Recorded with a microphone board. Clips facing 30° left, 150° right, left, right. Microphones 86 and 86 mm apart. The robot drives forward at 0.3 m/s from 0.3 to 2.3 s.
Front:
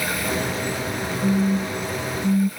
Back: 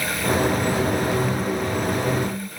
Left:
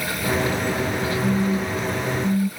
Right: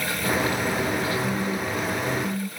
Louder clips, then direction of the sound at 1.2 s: Front 2 dB, left 4 dB; 20° left.